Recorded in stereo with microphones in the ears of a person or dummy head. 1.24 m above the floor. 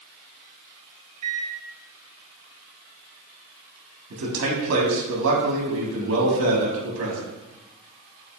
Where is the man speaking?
75° right (ahead or behind), 1.1 m.